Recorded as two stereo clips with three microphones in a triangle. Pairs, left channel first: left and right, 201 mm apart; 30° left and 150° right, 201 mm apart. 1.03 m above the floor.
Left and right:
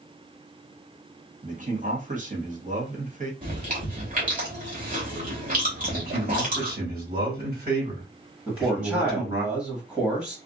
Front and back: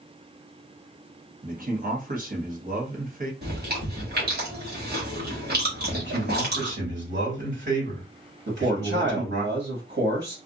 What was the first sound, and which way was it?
A man speaking, 125° right.